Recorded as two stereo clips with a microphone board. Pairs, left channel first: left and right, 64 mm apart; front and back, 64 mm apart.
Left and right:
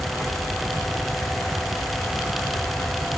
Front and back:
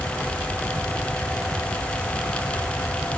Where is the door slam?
No door slam in this recording.